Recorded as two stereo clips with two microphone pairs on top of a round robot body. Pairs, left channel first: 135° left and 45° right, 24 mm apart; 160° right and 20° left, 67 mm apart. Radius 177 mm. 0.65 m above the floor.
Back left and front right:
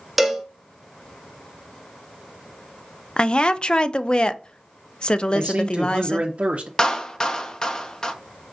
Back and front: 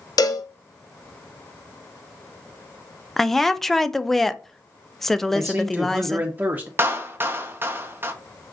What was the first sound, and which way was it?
A cowbell, 135° right.